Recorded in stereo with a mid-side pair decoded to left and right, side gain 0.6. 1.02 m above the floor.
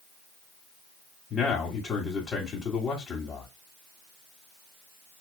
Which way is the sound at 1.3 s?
30° left.